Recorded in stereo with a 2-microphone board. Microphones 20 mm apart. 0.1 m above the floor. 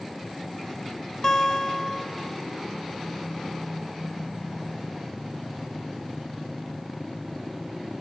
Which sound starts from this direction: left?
A guitar, at 1.2 s.